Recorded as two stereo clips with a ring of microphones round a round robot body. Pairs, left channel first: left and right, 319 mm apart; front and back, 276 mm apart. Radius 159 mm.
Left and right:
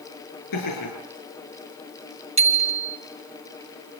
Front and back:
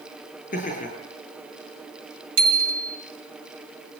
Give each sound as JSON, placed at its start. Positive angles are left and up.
{"t": 0.5, "sound": "laughter", "azimuth_deg": 60, "distance_m": 8.0}
{"t": 2.4, "sound": "a bicycle bell", "azimuth_deg": -160, "distance_m": 3.0}